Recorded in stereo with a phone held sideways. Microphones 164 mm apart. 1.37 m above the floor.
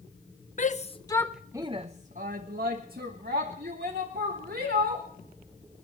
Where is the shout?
55° left (ahead or behind), 1.0 m; by 5.1 s 80° right, 4 m.